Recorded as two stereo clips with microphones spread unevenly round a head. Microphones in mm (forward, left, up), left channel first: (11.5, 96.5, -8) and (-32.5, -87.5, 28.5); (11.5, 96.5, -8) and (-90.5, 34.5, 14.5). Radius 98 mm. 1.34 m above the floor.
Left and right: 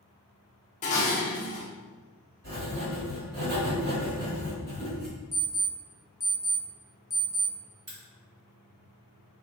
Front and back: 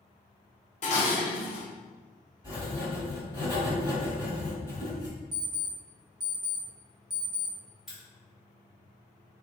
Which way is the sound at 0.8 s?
20° left.